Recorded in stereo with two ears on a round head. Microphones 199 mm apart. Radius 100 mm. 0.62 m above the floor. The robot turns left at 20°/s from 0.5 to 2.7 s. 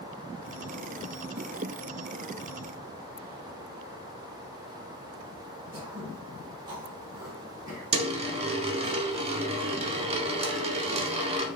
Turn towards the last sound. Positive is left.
turn(degrees=-30)  # may be behind; listen again after turning